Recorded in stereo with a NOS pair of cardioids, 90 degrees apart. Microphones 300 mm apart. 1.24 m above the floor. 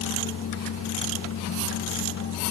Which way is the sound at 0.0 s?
60° left.